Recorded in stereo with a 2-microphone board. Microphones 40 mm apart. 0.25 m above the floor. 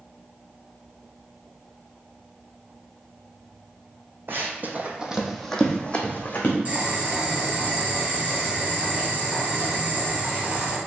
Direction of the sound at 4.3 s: 60° right (ahead or behind).